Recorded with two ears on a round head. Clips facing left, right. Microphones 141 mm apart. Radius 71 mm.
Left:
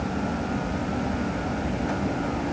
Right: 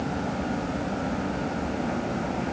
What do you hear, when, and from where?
Only background noise.